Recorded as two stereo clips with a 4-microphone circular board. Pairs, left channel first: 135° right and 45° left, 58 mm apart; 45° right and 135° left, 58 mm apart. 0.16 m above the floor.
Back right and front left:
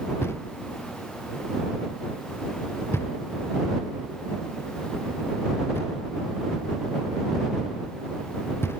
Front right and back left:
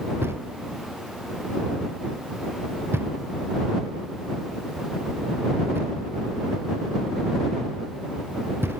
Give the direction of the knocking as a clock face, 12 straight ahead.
6 o'clock.